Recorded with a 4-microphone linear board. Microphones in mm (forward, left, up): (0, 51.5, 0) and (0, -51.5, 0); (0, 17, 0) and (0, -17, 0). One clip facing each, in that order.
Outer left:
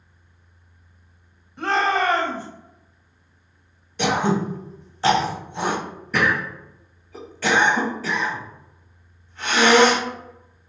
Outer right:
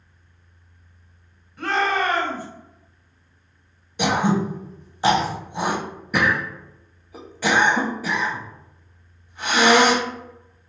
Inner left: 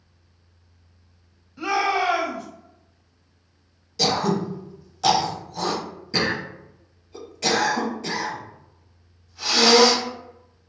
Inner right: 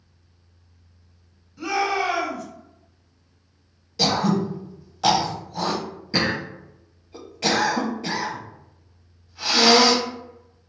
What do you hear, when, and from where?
1.6 s a shout: 25° left (ahead or behind), 1.4 m
4.0 s throat clearing: 15° right (ahead or behind), 0.6 m